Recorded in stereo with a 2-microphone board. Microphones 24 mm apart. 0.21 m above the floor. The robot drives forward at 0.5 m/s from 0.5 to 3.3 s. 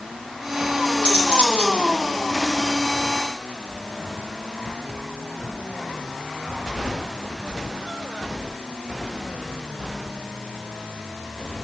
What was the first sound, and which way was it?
Cutlery clinking, 60° right (ahead or behind).